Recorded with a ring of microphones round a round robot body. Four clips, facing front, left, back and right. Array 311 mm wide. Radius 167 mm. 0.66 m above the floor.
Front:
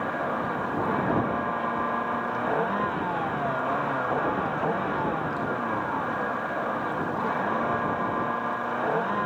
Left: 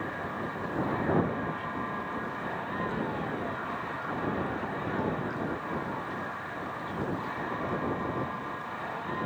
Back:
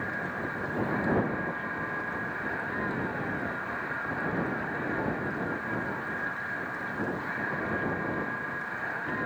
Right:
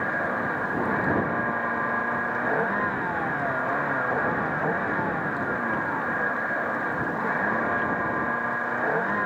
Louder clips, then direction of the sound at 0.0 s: Right 8 dB, front 6 dB; 45° right.